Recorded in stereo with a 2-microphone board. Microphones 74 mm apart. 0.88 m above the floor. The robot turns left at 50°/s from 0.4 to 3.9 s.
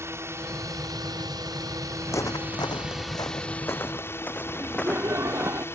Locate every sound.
0.0 s a drone: 45° right; by 5.8 s 140° left
2.1 s footsteps: 40° left (ahead or behind); by 5.5 s 10° left (ahead or behind)
4.5 s laughter: 40° right (ahead or behind)